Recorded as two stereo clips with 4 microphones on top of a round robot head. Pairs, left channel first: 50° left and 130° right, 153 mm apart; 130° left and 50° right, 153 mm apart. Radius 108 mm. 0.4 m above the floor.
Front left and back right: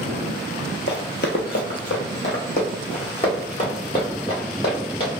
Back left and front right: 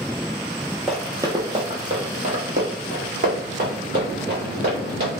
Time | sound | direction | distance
0.9 | running footsteps | 45° left | 0.5 m